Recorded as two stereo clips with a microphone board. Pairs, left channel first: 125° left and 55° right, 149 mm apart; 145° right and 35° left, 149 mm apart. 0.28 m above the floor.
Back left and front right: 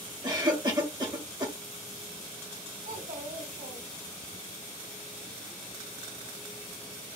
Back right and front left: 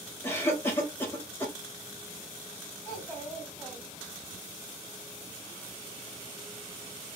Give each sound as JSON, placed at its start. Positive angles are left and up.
{"t": 0.2, "sound": "a cough", "azimuth_deg": -85, "distance_m": 1.3}
{"t": 2.9, "sound": "a child speaking", "azimuth_deg": -65, "distance_m": 1.8}